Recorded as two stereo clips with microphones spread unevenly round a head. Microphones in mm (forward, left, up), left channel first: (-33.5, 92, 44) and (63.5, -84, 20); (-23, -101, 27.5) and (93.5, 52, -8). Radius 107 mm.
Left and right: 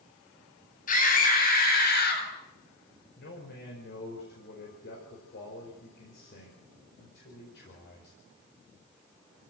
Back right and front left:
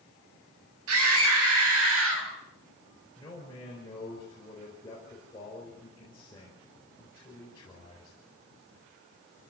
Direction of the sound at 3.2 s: 160° left.